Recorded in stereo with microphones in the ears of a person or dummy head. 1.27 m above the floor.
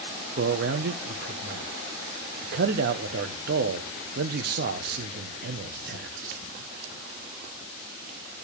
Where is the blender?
I don't hear a blender.